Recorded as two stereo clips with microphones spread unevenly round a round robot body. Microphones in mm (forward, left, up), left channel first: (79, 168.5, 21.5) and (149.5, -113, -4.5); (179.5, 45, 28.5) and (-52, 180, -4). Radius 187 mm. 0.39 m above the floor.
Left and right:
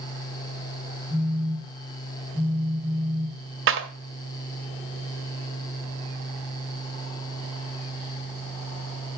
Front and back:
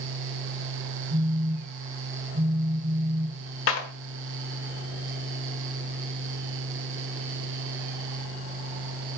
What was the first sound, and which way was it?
A phone buzzing, straight behind.